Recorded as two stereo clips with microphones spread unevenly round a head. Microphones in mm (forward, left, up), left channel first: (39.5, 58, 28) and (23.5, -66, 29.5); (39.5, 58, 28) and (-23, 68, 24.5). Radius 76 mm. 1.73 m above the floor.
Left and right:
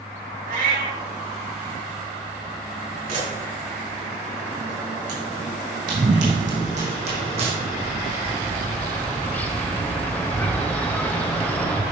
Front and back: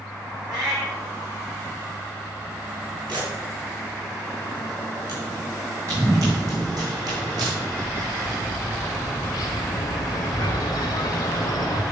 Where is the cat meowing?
105° right, 1.8 m.